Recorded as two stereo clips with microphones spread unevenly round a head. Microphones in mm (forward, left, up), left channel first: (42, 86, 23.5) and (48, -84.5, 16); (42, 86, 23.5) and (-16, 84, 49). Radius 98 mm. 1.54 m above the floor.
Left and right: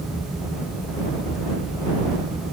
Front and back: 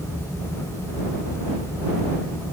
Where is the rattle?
No rattle in this recording.